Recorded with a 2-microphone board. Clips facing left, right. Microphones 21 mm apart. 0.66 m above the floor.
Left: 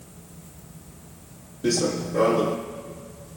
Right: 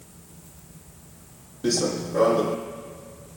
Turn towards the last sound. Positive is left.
turn(degrees=-5)  # may be behind; listen again after turning